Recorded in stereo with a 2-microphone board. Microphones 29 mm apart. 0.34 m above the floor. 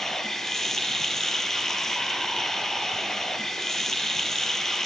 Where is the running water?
15° left (ahead or behind), 1.7 m.